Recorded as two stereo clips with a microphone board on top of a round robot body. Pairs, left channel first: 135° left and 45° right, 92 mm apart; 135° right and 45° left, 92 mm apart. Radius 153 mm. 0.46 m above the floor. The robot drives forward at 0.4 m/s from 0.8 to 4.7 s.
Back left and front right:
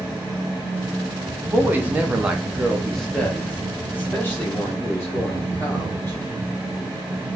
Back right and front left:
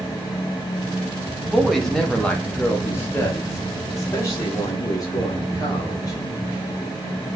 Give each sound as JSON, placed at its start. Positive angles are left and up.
{"t": 1.4, "sound": "a woman speaking", "azimuth_deg": -35, "distance_m": 1.0}